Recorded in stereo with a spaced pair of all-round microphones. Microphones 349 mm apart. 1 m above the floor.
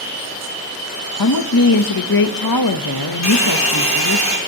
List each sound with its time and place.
1.2 s a woman speaking: 75° left (ahead or behind), 0.9 m
3.2 s a hair dryer: 50° left (ahead or behind), 3.5 m